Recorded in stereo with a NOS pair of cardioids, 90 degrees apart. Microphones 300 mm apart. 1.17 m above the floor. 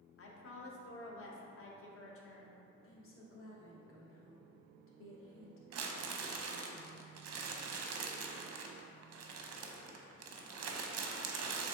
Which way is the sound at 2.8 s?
45° left.